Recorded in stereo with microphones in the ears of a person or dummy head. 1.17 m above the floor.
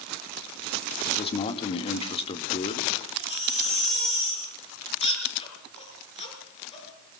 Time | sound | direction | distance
1.1 | a man speaking | 30° left (ahead or behind) | 1.9 m
3.1 | a baby crying | 40° left (ahead or behind) | 6.5 m